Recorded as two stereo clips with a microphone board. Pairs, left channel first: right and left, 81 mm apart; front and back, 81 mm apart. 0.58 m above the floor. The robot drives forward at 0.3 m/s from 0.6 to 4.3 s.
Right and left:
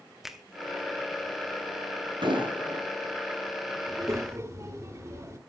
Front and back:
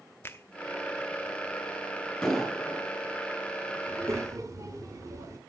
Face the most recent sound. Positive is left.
turn(degrees=140)